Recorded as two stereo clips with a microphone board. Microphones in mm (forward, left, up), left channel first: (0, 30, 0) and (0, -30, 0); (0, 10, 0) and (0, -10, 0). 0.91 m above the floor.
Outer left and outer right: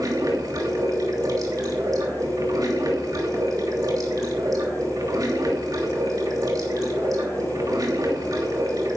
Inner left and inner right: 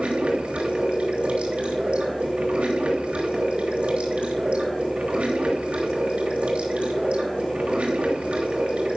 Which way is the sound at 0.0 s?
75° right (ahead or behind).